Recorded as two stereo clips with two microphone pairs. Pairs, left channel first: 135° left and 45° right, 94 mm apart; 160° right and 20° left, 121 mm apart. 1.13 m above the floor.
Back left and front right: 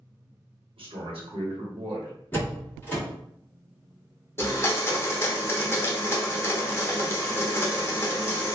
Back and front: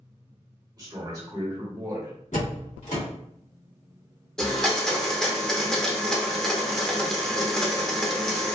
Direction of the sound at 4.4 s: 120° left.